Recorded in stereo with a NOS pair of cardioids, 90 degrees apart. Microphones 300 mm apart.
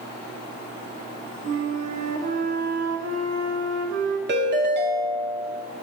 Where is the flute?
55° right, 2 m.